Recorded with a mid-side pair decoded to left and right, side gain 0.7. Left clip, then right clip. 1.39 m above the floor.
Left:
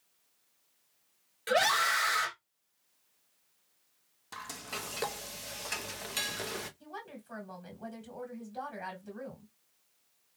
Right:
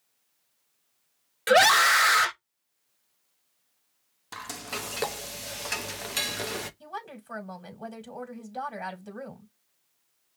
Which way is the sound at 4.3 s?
25° right.